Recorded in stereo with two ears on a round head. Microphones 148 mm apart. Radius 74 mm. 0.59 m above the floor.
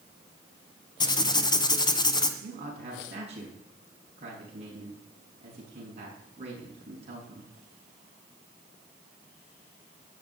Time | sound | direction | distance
1.0 | writing | 25° left (ahead or behind) | 1.3 m
2.4 | a man speaking | 40° right (ahead or behind) | 6 m